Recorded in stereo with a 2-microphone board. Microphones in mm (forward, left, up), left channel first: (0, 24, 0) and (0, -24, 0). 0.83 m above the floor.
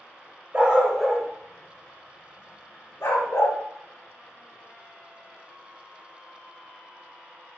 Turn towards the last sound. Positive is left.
turn(degrees=75)  # may be behind; listen again after turning